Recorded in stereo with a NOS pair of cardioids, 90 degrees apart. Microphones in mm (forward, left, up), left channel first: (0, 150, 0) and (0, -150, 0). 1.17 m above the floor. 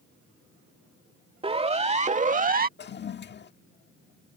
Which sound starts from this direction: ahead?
A siren, at 1.4 s.